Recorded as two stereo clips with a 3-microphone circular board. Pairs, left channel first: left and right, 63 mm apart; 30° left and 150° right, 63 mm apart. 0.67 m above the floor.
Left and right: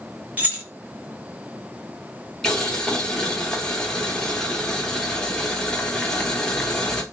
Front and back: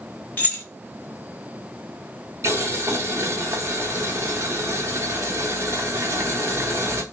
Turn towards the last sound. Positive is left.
turn(degrees=170)